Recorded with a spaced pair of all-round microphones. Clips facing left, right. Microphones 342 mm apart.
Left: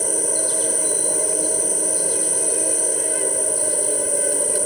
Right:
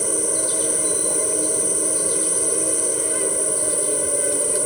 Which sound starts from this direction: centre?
An insect, at 0.0 s.